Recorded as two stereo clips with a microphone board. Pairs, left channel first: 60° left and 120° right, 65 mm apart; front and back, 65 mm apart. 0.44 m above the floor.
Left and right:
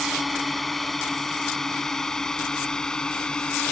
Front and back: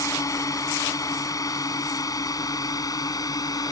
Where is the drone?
30° right; by 3.7 s 15° right.